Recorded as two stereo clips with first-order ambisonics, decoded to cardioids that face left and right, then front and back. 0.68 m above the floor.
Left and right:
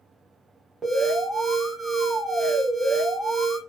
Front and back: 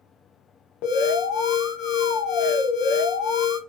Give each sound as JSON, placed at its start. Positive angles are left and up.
{"t": 0.8, "sound": "an alarm", "azimuth_deg": -10, "distance_m": 1.1}